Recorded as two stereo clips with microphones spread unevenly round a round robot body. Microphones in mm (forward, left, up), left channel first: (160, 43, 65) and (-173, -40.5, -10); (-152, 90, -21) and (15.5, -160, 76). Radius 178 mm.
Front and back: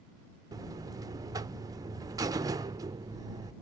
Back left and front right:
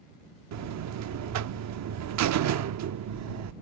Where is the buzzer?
100° right.